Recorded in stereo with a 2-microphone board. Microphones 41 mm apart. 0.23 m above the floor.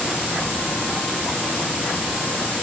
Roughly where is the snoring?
No snoring in this recording.